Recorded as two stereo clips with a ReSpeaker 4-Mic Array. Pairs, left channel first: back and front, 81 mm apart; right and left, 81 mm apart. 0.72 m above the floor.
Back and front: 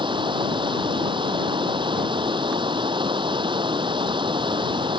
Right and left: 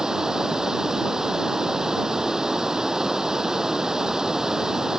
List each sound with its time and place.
0.0 s running water: 10° left